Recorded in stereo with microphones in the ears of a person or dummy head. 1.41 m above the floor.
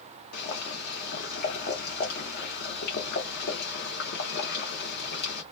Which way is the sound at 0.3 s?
60° left (ahead or behind).